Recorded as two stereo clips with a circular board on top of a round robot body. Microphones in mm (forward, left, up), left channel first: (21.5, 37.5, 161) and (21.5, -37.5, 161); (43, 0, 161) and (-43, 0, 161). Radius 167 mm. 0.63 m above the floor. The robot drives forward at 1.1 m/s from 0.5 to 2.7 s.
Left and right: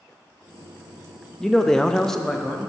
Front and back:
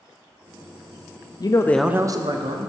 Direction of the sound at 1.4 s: 5° left.